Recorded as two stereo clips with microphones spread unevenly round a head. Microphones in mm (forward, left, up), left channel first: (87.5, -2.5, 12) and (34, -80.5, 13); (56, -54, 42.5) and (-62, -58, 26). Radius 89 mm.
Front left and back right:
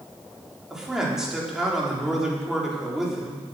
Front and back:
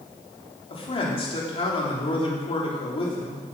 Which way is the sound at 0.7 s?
40° right.